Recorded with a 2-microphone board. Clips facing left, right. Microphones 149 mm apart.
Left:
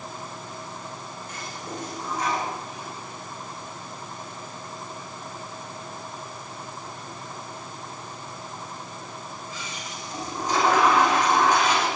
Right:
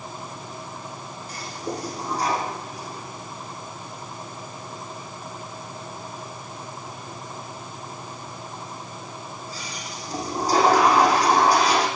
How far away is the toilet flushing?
About 6.5 m.